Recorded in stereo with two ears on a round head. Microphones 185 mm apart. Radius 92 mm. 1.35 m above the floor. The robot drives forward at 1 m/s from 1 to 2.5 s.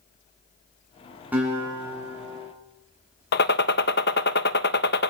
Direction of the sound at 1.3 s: 10° right (ahead or behind).